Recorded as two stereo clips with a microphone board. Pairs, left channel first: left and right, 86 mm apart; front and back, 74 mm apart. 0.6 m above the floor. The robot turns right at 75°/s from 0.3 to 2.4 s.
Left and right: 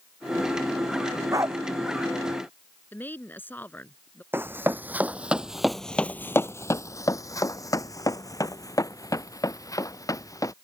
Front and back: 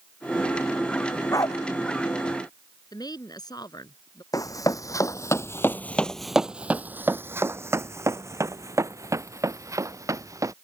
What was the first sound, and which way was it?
A dog barking, 45° right.